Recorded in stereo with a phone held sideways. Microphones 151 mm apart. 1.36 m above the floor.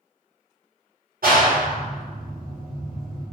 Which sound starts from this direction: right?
A clap, at 1.2 s.